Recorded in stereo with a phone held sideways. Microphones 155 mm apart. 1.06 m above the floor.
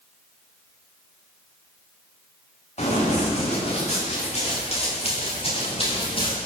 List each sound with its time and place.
2.8 s running footsteps: 45° left (ahead or behind), 9.5 m; by 6.4 s 35° left (ahead or behind), 7 m